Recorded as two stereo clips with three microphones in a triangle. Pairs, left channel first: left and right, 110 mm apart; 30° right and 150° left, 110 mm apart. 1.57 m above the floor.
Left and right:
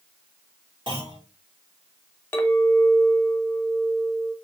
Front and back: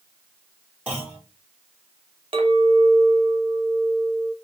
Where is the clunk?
135° right, 3 m.